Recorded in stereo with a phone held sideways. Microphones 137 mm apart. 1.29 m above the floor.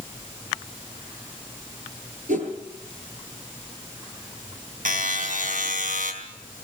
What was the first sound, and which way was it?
A whoosh, 70° right (ahead or behind).